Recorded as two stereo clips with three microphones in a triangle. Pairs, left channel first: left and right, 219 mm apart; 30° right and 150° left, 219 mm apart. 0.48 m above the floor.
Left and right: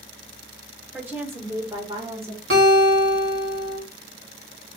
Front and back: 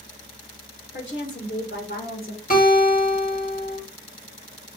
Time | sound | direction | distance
0.9 | a woman speaking | 10° right | 2.5 m
2.5 | a guitar | 75° right | 2 m